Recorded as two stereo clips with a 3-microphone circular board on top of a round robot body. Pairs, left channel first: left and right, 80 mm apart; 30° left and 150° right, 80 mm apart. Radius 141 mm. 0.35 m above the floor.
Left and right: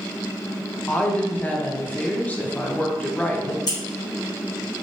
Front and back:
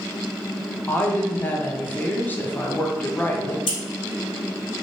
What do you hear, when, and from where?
0.9 s a woman speaking: 55° left, 0.9 m
3.7 s scissors: 50° left, 0.6 m